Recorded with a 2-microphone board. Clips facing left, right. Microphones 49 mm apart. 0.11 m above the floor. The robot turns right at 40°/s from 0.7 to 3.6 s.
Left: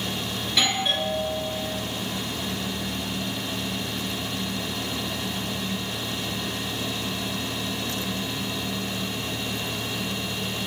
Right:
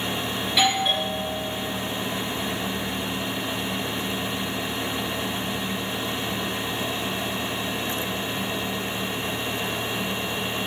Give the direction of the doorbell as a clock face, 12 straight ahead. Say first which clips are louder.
Right 3 dB; 12 o'clock.